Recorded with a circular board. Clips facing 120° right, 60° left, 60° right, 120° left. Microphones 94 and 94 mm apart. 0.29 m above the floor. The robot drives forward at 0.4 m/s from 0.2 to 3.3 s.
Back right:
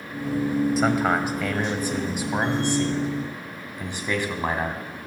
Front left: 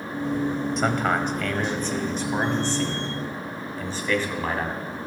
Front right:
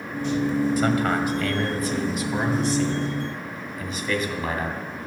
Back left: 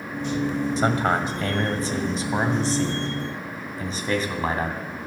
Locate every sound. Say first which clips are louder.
0.8 s a man speaking: back right 2 dB, even; 155° left, 1.5 m; by 5.1 s 170° left, 2 m